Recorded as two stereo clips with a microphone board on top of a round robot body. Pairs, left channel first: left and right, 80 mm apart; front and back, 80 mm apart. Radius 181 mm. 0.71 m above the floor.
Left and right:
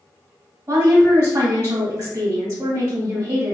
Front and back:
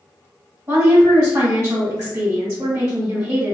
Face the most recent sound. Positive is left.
turn(degrees=-140)